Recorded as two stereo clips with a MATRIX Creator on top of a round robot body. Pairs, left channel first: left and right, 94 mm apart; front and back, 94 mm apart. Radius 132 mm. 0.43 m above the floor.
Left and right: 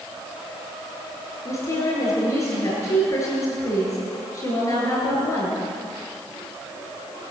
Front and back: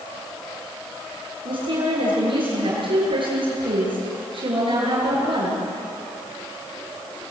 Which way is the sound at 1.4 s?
150° left.